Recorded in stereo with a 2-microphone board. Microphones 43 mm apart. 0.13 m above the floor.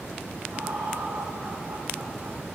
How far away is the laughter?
About 7 m.